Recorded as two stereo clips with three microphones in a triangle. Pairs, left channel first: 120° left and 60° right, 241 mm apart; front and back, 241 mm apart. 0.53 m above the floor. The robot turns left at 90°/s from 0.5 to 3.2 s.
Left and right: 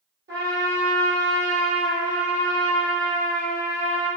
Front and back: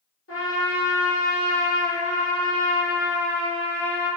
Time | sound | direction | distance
0.3 | a trumpet | 25° right | 1.5 m